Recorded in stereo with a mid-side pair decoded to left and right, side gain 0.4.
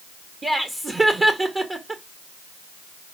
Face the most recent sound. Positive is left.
turn(degrees=-35)